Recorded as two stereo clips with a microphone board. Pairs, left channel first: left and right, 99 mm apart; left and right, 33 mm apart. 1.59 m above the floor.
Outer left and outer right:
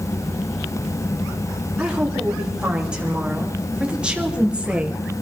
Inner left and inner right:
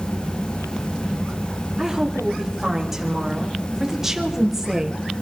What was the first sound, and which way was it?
A woman speaking, 10° right (ahead or behind).